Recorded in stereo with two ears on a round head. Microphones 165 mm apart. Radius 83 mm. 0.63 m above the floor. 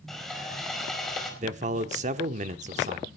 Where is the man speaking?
40° right (ahead or behind), 1.1 m.